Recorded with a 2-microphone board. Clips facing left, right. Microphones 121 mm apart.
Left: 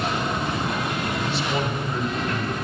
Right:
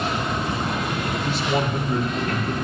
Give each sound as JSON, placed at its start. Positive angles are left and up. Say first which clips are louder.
{"t": 1.2, "sound": "a man speaking", "louder": "right 5 dB", "side_deg": -45, "distance_m": 2.5}